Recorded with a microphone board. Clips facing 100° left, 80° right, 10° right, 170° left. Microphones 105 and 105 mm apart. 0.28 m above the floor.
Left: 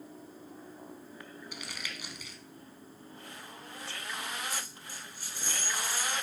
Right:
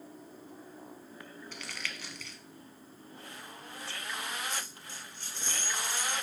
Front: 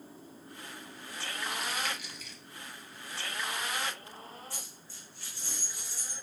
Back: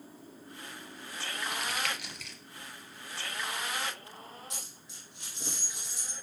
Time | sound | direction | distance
1.5 | crumpling | 175° left | 0.9 m
4.5 | a dropped coin | straight behind | 2.5 m